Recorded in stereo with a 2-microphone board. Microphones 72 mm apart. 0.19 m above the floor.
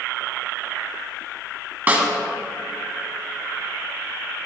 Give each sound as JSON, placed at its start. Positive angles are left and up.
{"t": 1.9, "sound": "a snare drum", "side_deg": -25, "distance_m": 1.4}